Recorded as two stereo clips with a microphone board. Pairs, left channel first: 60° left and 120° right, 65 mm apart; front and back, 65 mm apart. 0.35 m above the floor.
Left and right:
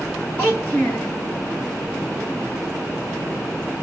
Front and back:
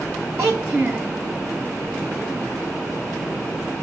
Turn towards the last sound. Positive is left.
turn(degrees=130)